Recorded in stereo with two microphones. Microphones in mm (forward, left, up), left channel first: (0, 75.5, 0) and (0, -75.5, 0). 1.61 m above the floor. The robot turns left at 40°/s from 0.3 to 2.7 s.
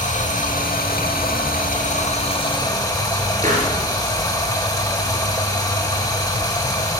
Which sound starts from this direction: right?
A pop, at 3.4 s.